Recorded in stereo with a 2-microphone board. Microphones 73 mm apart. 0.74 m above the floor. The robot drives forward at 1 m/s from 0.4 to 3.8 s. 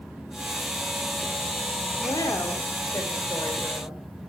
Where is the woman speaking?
70° left (ahead or behind), 1.9 m; by 4.0 s 40° left (ahead or behind), 3 m.